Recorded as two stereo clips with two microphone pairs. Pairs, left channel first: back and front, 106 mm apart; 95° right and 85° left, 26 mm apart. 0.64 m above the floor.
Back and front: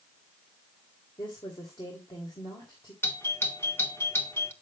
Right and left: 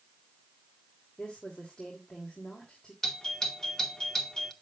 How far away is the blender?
I don't hear a blender.